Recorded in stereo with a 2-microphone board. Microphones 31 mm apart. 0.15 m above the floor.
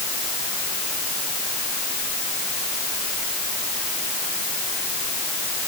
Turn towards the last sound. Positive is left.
No sound to turn to.